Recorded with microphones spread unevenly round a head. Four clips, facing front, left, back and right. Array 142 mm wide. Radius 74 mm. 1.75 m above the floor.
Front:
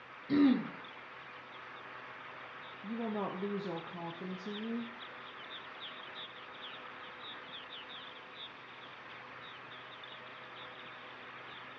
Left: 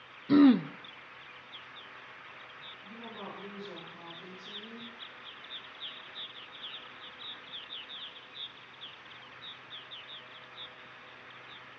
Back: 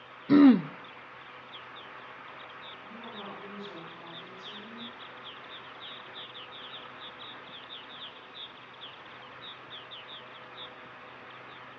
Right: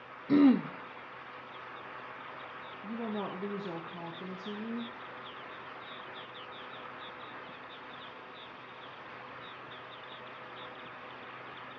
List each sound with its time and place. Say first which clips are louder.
0.3 s throat clearing: left 2 dB, back 9 dB; 175° left, 0.5 m
2.8 s a woman speaking: right 8 dB, front 8 dB; 45° right, 1.2 m